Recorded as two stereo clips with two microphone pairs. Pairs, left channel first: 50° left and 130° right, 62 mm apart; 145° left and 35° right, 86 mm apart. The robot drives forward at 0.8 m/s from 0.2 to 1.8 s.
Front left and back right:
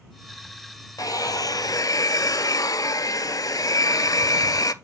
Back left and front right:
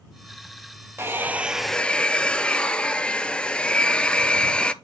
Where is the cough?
No cough in this recording.